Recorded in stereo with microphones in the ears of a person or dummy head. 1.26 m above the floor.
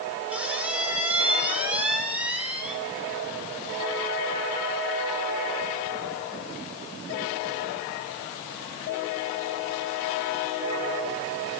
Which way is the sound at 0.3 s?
5° right (ahead or behind).